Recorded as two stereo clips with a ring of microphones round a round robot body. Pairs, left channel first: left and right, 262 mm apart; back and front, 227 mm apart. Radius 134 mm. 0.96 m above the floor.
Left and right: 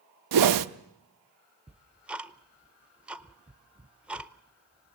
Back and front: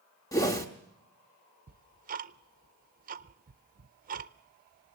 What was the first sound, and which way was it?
A whoosh, 100° right.